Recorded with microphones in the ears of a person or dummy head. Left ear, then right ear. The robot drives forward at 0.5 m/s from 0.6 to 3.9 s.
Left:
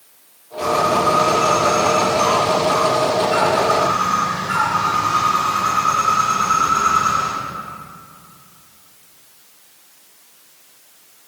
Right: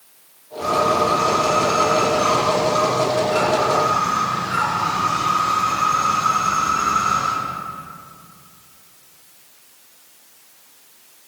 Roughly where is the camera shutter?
No camera shutter in this recording.